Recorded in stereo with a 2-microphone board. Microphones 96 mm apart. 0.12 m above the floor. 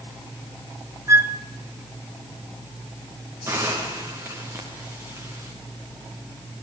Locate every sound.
1.1 s a flute: 30° right (ahead or behind), 1.2 m
3.5 s a hiss: 25° right (ahead or behind), 5.5 m